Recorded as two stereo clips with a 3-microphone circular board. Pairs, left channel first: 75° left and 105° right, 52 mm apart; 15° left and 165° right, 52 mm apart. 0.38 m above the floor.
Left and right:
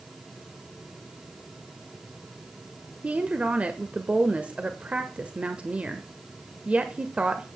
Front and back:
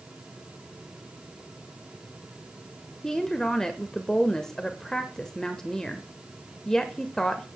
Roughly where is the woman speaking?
Ahead right.